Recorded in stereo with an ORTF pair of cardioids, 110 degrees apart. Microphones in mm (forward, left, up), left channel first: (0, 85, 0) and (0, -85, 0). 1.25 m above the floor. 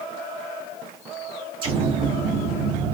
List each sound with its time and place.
1.6 s an explosion: 55° right, 2.5 m